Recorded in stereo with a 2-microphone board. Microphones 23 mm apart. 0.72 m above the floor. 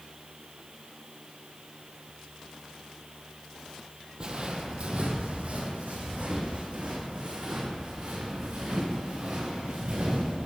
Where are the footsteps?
40° right (ahead or behind), 1.2 m; by 10.5 s 75° right (ahead or behind), 5 m.